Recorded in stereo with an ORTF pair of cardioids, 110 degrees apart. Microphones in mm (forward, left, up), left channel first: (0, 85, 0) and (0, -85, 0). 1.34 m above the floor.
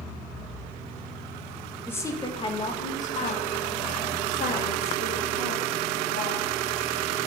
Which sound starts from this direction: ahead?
A woman speaking, at 1.9 s.